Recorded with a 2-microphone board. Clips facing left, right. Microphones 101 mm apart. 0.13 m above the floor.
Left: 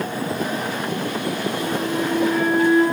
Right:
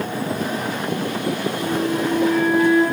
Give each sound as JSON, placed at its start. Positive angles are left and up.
{"t": 1.6, "sound": "a flute", "side_deg": 35, "distance_m": 1.1}